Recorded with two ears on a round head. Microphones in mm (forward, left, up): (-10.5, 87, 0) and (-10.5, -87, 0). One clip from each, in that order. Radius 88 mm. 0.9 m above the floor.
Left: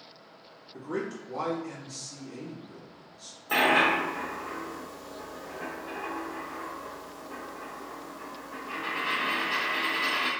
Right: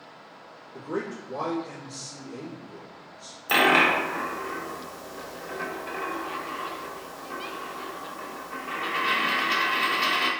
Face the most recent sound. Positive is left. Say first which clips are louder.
# right 3 dB
turn(degrees=-65)  # may be behind; listen again after turning